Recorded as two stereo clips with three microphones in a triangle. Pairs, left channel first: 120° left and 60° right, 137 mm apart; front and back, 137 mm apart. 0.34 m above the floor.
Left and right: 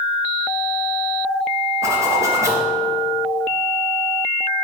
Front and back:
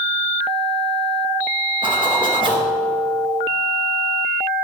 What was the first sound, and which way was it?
A zipper, 130° right.